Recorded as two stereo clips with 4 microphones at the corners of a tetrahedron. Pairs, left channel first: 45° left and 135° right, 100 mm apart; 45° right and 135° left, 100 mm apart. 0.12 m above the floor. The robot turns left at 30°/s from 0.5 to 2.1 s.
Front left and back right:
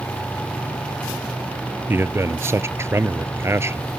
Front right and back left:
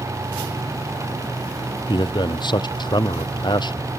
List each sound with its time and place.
1.9 s a man speaking: 70° right; by 3.9 s 75° right